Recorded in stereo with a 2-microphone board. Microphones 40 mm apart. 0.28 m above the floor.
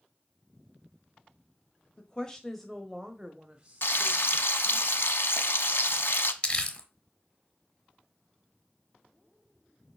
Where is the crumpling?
35° left (ahead or behind), 1.2 m.